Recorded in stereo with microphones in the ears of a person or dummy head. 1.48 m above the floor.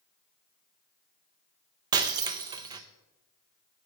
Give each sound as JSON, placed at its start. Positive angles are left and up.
{"t": 1.9, "sound": "breaking glass", "side_deg": -25, "distance_m": 0.7}